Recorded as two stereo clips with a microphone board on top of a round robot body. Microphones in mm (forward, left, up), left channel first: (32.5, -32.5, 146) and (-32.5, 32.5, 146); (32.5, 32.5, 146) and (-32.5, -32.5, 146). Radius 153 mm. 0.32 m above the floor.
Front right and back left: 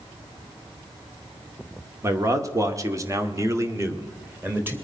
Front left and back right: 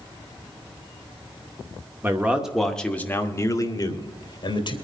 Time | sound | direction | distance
2.0 | a man speaking | 170° left | 1.7 m